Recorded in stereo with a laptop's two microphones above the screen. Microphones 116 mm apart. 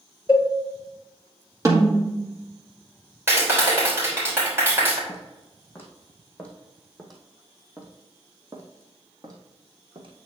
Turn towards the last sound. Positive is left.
turn(degrees=-50)  # may be behind; listen again after turning